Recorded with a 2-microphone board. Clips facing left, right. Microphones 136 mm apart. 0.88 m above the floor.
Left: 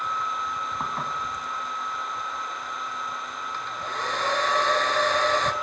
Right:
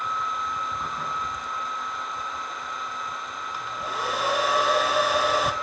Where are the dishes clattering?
75° left (ahead or behind), 4.5 m.